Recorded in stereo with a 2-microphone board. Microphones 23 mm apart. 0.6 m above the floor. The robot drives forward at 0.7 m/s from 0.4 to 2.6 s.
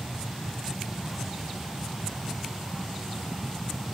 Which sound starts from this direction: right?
An aircraft, at 0.0 s.